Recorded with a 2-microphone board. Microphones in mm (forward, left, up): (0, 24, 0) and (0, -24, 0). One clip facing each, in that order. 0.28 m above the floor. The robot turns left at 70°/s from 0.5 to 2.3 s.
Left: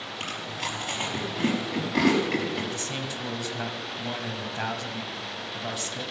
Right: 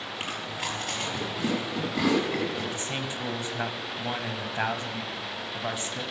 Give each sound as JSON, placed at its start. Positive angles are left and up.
{"t": 0.2, "sound": "chewing", "side_deg": -10, "distance_m": 5.5}
{"t": 2.7, "sound": "a man speaking", "side_deg": -20, "distance_m": 1.3}